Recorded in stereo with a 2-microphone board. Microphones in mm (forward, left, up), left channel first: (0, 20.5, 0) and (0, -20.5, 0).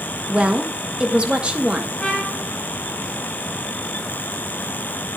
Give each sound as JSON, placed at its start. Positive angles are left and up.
{"t": 0.3, "sound": "a woman speaking", "side_deg": -25, "distance_m": 1.0}
{"t": 2.0, "sound": "a trumpet", "side_deg": 15, "distance_m": 6.0}